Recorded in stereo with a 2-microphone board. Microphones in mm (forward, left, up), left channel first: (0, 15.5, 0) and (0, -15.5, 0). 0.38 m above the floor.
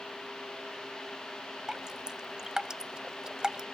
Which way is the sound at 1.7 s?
25° right (ahead or behind).